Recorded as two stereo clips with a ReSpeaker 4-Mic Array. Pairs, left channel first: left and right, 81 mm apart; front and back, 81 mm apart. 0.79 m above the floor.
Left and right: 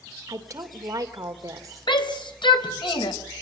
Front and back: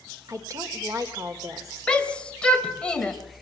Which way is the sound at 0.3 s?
135° right.